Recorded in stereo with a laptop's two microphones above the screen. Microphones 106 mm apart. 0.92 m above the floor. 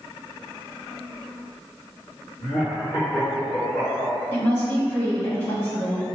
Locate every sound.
2.4 s laughter: 45° left (ahead or behind), 1.5 m; by 4.1 s 15° left (ahead or behind), 3 m
4.3 s a woman speaking: 20° left (ahead or behind), 1.8 m